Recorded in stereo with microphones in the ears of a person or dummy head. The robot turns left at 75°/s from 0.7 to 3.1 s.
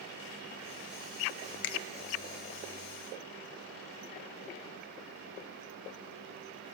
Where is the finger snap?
75° left (ahead or behind), 1.1 m; by 1.8 s 65° left (ahead or behind), 1.1 m.